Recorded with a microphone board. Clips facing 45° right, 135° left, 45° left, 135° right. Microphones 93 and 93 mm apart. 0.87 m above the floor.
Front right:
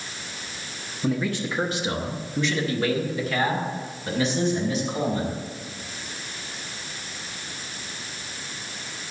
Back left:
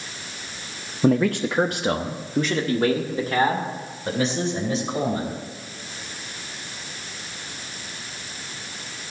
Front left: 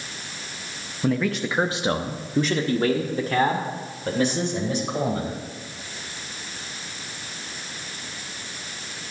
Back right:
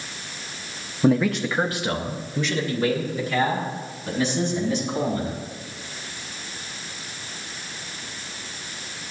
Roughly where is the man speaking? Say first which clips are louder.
Back left 7 dB, back right 4 dB; behind.